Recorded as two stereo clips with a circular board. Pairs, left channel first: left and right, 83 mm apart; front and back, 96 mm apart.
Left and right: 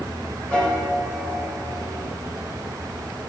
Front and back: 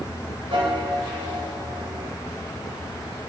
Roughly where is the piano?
Behind.